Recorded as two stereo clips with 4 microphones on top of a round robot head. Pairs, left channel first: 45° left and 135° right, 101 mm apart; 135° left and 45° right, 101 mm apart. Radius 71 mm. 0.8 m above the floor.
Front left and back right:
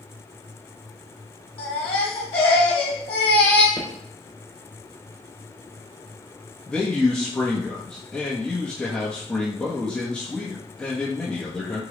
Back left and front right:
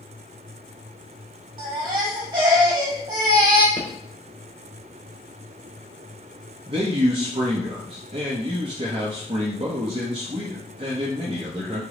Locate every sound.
1.6 s a baby crying: 5° left, 1.3 m
3.8 s footsteps: 170° left, 0.7 m
6.7 s a man speaking: 35° right, 0.7 m